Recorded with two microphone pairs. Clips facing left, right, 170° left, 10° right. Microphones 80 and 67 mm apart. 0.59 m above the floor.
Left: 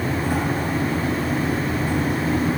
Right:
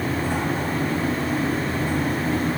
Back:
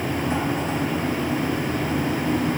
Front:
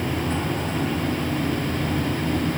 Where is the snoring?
No snoring in this recording.